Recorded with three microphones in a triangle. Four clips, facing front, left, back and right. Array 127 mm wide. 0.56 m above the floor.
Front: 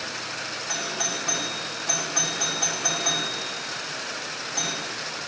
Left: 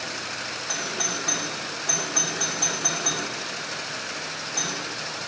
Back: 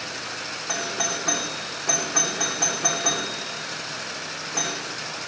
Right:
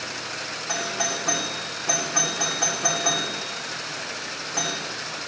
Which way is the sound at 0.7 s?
160° right.